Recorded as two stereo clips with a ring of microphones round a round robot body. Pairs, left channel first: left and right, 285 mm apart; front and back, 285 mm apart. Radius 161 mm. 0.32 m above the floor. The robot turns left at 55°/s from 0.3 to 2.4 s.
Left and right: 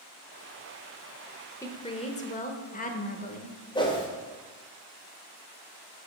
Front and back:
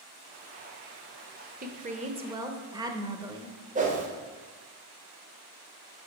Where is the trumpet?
No trumpet in this recording.